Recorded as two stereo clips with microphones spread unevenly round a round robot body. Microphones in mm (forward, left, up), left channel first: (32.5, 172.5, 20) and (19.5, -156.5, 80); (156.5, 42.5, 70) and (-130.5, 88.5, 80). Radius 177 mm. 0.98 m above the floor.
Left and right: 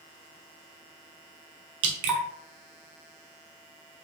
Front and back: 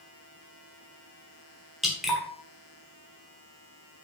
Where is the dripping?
100° right, 1.0 m.